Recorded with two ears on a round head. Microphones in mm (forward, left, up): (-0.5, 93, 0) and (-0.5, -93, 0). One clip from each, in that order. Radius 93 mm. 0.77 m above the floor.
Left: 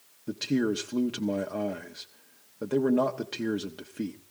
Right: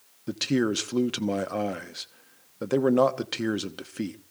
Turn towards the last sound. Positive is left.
turn(degrees=-35)  # may be behind; listen again after turning